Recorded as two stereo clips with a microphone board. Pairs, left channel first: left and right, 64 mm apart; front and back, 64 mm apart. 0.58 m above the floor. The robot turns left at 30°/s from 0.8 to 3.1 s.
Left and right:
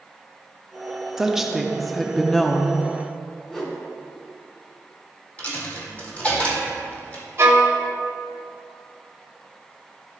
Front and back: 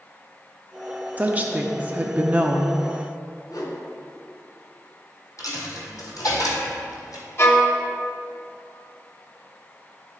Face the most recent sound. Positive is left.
turn(degrees=-45)